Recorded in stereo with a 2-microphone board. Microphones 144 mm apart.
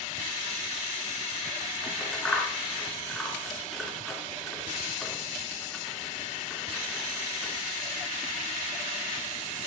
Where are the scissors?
5° left (ahead or behind), 3.5 m.